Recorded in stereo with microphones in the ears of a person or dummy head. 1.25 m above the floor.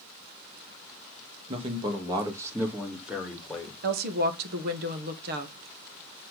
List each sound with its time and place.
1.5 s a man speaking: 35° right (ahead or behind), 1.9 m; by 3.7 s centre (ahead or behind), 2.5 m
3.8 s a woman speaking: 55° right (ahead or behind), 1.4 m